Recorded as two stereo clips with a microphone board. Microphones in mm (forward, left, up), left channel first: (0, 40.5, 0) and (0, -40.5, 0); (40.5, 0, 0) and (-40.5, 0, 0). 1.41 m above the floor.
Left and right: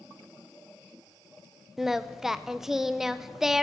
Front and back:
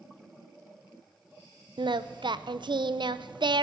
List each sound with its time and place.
1.8 s singing: 175° right, 0.5 m